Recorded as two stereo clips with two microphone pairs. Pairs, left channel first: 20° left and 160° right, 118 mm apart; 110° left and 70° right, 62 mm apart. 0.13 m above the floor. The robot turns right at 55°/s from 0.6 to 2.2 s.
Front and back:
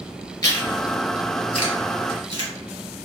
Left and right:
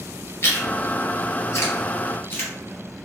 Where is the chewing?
70° left, 1.7 m; by 2.5 s 155° left, 1.7 m.